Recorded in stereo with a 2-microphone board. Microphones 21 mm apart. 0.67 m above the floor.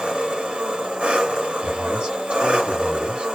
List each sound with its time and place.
0.0 s an engine running: 70° right (ahead or behind), 1.9 m
1.6 s a man speaking: 65° right (ahead or behind), 2 m